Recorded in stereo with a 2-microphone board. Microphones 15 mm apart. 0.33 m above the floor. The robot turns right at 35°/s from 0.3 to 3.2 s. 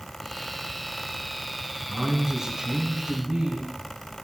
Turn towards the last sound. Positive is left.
turn(degrees=-125)